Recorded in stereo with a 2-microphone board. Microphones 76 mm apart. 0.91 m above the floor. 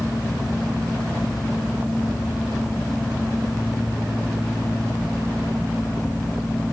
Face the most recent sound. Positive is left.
No sound to turn to.